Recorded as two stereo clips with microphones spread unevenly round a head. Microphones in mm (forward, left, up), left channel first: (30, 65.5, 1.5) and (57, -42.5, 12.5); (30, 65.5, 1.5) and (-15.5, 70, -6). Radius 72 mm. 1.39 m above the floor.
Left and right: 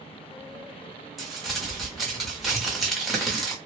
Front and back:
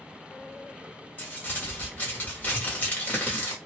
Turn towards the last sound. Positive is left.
turn(degrees=5)